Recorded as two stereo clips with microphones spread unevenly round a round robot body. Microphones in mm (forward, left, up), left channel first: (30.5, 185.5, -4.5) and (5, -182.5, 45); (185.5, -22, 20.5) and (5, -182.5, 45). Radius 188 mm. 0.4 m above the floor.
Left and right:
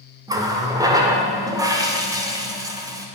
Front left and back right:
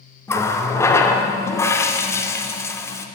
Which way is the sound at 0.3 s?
5° right.